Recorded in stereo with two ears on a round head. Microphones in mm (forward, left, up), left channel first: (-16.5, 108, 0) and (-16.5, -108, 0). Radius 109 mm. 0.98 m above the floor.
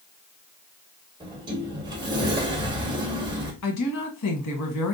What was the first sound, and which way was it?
A sliding door, 20° right (ahead or behind).